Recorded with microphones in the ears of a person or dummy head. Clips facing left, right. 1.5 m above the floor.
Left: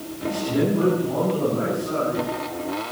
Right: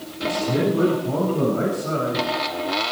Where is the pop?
I don't hear a pop.